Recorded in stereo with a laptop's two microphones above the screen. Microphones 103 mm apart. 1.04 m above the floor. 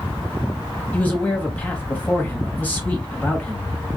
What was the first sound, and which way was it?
A man speaking, 15° left (ahead or behind).